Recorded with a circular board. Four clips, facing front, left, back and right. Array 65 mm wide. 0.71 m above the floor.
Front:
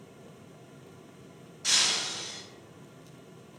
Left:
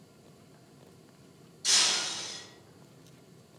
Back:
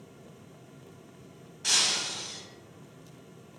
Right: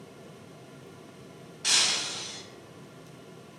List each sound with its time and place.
1.6 s breaking glass: 105° right, 1.6 m